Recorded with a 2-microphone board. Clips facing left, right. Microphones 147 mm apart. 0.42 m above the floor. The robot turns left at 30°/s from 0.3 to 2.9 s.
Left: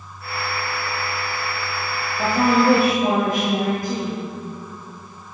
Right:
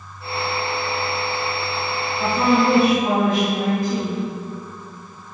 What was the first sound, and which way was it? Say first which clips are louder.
A woman speaking: even; 45° left (ahead or behind).